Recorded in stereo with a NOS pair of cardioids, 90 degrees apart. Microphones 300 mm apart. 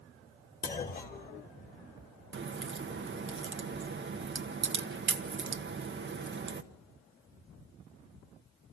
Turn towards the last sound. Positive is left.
turn(degrees=-40)